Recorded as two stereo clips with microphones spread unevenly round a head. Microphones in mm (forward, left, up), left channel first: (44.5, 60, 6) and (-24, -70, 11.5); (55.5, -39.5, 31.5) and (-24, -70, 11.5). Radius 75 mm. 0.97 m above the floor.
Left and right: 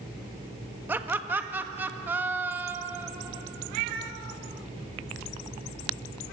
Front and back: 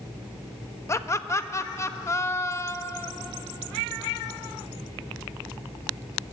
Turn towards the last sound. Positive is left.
turn(degrees=-40)